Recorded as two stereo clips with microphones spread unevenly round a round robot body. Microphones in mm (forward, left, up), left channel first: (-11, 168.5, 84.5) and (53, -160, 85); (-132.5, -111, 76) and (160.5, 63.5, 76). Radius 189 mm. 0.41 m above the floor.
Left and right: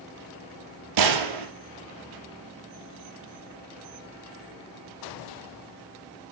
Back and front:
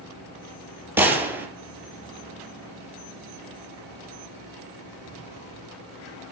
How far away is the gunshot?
About 3.5 m.